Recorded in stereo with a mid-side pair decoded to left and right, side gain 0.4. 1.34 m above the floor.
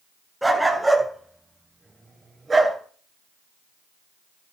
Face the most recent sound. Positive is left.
turn(degrees=-30)